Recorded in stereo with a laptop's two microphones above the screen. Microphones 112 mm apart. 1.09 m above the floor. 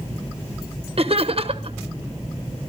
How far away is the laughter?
About 1.3 m.